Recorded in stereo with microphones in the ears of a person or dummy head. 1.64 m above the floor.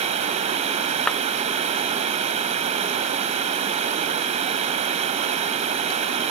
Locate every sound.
0.0 s running water: 40° right (ahead or behind)
1.1 s a clap: 5° left (ahead or behind)